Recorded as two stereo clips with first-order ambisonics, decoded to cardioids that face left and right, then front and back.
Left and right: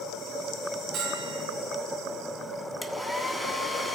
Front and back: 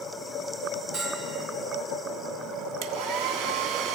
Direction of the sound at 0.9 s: 145° right.